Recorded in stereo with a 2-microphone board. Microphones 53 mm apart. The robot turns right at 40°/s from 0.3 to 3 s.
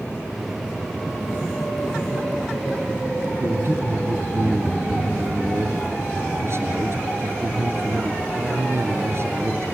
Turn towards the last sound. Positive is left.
turn(degrees=-55)  # may be behind; listen again after turning